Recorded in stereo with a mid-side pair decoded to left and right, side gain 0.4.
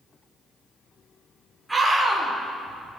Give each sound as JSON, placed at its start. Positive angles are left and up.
{"t": 1.7, "sound": "a scream", "azimuth_deg": -10, "distance_m": 4.0}